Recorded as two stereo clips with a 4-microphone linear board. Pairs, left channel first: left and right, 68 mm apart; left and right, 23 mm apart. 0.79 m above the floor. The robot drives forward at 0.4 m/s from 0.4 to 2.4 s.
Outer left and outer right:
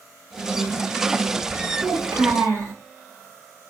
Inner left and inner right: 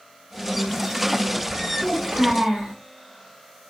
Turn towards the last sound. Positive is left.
turn(degrees=-50)  # may be behind; listen again after turning